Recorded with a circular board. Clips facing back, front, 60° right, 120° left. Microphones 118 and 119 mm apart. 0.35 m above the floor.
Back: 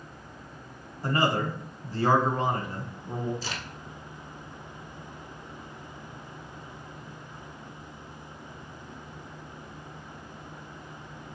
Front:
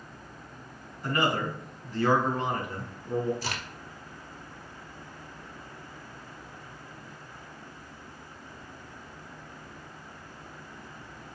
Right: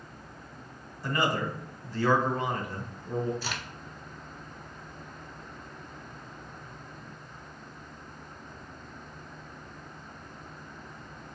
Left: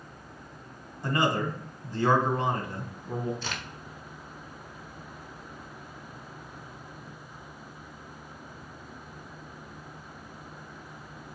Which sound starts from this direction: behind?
A man speaking, at 1.0 s.